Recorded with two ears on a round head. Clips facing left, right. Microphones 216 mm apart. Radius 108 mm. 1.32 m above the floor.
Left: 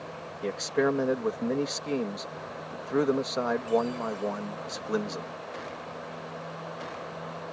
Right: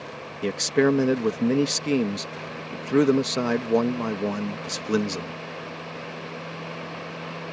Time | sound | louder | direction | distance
0.4 | a man speaking | right 6 dB | 40° right (ahead or behind) | ?